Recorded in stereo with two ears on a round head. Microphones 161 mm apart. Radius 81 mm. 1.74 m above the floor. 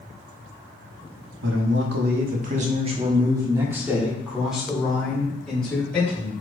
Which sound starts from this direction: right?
A man speaking, at 1.4 s.